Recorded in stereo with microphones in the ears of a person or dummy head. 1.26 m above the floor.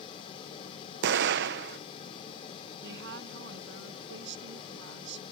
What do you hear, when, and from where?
1.0 s an explosion: 55° right (ahead or behind)
2.8 s a woman speaking: 65° right (ahead or behind)